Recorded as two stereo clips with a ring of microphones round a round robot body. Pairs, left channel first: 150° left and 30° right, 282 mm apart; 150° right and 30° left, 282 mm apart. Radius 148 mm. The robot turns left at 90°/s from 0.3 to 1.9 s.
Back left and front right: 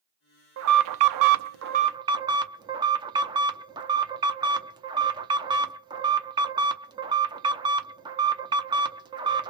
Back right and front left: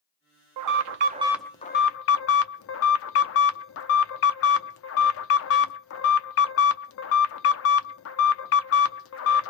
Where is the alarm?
15° left, 0.6 m; by 9.5 s 105° right, 0.6 m.